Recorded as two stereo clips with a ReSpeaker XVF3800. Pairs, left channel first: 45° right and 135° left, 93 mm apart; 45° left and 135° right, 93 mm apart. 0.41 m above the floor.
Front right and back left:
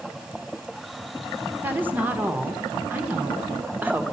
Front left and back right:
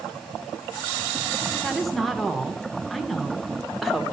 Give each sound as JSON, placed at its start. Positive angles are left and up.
{"t": 1.6, "sound": "a woman speaking", "azimuth_deg": 130, "distance_m": 0.8}